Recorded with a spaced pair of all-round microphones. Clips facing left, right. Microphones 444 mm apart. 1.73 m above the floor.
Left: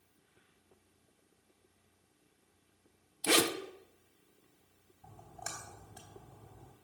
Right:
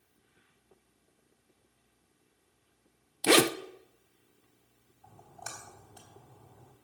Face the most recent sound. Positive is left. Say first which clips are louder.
# even
turn(degrees=35)  # may be behind; listen again after turning